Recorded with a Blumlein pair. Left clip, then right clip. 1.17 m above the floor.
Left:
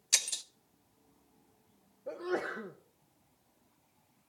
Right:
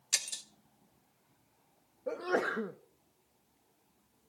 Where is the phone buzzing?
I don't hear a phone buzzing.